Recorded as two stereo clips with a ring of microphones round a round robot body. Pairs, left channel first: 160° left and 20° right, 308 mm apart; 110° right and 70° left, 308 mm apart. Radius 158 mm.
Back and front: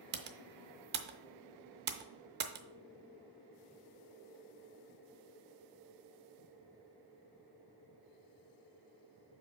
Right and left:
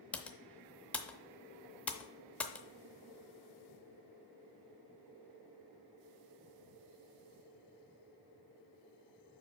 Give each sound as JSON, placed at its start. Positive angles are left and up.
{"t": 0.1, "sound": "typing on a keyboard", "azimuth_deg": -30, "distance_m": 0.7}